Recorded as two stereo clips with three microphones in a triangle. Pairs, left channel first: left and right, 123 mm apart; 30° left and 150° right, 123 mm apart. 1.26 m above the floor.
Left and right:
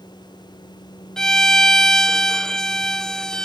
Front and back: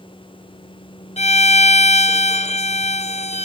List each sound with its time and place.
1.2 s a violin: 5° left